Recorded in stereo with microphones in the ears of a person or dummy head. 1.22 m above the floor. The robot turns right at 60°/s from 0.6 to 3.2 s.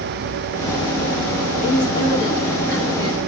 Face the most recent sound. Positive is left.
turn(degrees=-145)